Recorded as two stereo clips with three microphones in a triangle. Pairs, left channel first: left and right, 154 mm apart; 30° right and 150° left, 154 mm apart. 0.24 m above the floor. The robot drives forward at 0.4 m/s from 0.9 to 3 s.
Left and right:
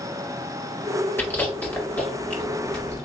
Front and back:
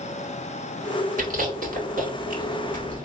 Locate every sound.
1.2 s chewing: 165° left, 1.2 m; by 3.0 s 170° left, 1.9 m